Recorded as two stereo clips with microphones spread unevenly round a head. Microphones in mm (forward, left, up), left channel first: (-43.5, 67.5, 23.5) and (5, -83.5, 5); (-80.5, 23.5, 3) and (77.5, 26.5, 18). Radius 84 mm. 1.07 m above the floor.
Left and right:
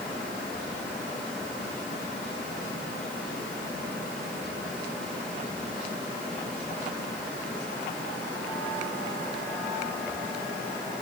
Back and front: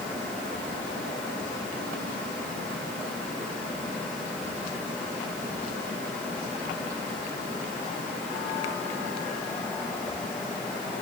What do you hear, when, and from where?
Only background noise.